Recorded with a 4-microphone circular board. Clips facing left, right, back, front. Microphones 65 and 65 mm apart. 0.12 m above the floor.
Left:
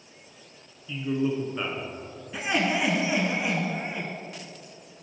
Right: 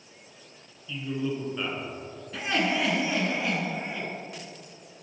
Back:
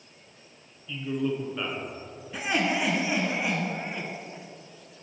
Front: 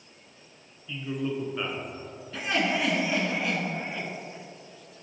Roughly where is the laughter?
Behind left.